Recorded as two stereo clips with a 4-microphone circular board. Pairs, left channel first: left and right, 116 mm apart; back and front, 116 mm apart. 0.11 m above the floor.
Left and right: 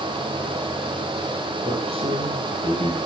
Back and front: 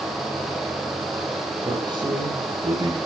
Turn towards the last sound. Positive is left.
turn(degrees=-55)